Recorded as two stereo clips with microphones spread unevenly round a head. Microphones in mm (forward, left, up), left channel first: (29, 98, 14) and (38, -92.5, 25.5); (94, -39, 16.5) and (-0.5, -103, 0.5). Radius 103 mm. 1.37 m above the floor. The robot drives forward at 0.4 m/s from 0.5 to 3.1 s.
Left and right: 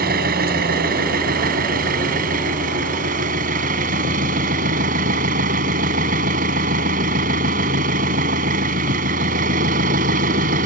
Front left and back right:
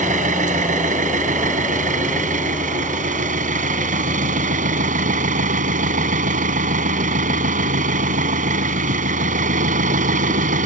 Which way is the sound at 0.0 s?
140° right.